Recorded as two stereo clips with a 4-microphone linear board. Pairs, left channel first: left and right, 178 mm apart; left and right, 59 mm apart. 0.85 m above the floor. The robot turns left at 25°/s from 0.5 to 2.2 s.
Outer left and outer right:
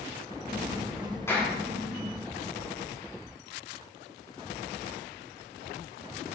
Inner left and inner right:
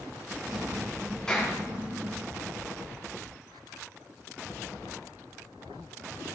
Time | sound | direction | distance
1.3 | a clap | 15° left (ahead or behind) | 6.5 m